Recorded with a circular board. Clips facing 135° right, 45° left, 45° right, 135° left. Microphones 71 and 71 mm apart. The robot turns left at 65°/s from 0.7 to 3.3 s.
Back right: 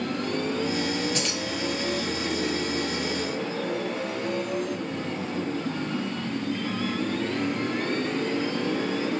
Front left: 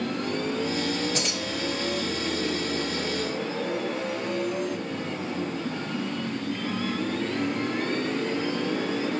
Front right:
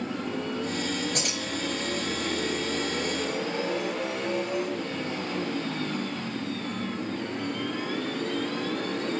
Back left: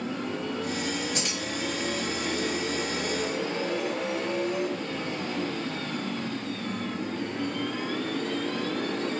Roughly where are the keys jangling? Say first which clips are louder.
Even, even; ahead.